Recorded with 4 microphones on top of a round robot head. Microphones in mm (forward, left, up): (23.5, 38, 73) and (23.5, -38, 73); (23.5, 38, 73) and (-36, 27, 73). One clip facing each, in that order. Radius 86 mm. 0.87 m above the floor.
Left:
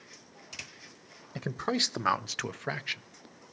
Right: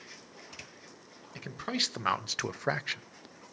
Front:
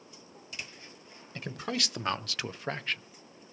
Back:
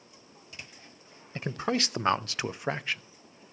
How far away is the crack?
No crack in this recording.